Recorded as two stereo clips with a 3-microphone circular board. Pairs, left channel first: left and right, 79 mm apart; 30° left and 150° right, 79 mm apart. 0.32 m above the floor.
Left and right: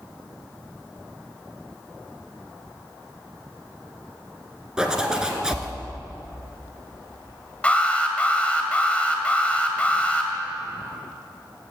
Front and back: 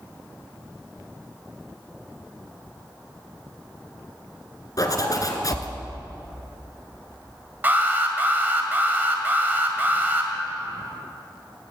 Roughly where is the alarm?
Behind left.